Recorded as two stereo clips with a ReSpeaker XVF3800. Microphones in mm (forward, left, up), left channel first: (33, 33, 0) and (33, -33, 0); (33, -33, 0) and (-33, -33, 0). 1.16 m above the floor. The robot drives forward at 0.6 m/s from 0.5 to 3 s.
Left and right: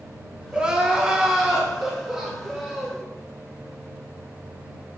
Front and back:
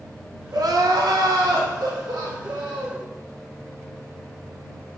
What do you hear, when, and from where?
0.5 s crying: 165° right, 1.0 m; by 3.0 s 175° right, 2.5 m